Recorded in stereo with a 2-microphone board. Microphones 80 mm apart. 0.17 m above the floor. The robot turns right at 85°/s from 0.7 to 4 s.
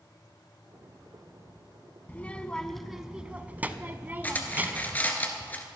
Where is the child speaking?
20° left (ahead or behind), 0.7 m; by 5.0 s 20° right (ahead or behind), 0.7 m.